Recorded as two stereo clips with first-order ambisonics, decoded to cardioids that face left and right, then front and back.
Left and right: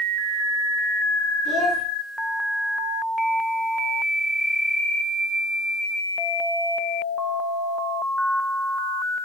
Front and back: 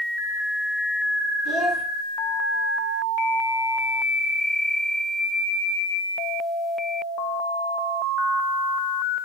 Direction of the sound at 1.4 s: 135° left.